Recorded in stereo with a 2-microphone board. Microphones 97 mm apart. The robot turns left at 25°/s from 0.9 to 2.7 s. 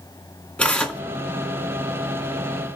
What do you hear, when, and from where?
0.6 s tearing paper: 10° left (ahead or behind), 2.5 m; by 1.0 s 15° left (ahead or behind), 2.5 m